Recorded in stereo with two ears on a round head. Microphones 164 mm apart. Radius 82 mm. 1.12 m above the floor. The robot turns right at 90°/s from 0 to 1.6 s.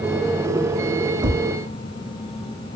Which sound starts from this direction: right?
Tapping, at 1.2 s.